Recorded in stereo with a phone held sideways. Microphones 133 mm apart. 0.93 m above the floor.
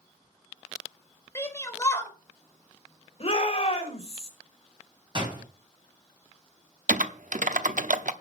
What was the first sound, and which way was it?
A shout, 20° left (ahead or behind).